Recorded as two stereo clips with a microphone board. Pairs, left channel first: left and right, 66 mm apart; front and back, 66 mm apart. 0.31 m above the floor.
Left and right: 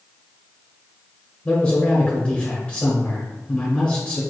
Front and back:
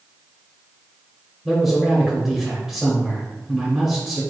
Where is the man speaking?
100° left, 0.9 m.